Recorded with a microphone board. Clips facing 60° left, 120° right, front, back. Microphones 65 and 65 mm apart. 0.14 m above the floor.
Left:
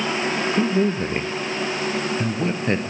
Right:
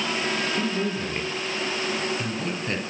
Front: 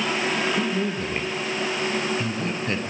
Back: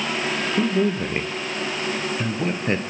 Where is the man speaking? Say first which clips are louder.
Left 6 dB, back 4 dB; 115° left, 2.5 m.